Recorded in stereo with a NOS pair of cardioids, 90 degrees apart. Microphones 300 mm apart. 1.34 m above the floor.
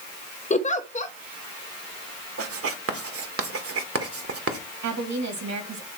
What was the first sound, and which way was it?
A giggle, 25° left.